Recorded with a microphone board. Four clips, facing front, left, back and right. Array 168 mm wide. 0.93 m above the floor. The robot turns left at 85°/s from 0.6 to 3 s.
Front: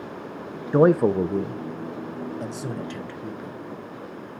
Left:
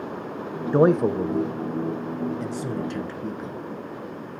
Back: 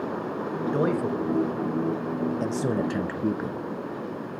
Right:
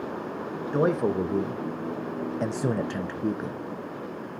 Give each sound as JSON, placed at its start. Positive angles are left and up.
{"t": 0.7, "sound": "a man speaking", "azimuth_deg": 40, "distance_m": 0.6}